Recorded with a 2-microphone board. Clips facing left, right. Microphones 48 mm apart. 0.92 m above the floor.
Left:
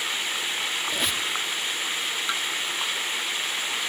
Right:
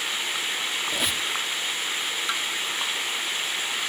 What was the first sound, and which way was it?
A squeak, centre (ahead or behind).